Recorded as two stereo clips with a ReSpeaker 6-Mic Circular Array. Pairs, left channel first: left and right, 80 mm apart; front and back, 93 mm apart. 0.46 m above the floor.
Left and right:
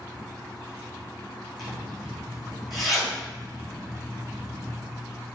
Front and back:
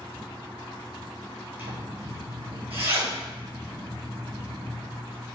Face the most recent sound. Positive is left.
turn(degrees=180)